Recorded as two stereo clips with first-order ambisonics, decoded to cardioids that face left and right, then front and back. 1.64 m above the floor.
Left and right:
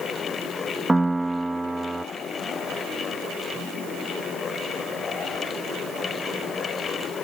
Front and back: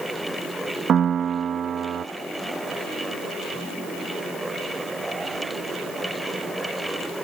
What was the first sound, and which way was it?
A piano, 165° right.